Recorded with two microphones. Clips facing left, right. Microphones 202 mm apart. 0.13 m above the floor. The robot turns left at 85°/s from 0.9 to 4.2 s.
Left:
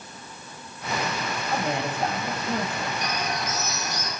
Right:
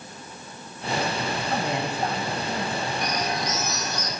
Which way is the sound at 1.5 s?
130° right.